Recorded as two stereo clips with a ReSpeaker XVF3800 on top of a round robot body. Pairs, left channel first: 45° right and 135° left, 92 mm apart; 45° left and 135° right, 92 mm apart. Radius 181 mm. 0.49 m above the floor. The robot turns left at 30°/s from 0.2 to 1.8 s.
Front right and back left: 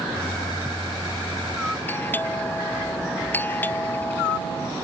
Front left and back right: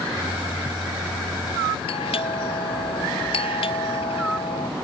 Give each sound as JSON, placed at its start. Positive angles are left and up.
{"t": 1.9, "sound": "a doorbell", "azimuth_deg": 25}